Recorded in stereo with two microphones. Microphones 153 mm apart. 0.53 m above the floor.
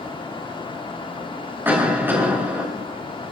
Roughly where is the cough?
Centre.